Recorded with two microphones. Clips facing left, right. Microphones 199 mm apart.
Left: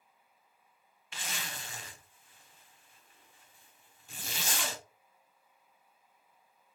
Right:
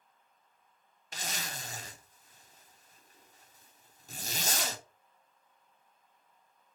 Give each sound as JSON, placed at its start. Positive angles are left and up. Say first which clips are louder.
{"t": 1.1, "sound": "a zipper", "louder": "right 2 dB", "side_deg": -40, "distance_m": 0.7}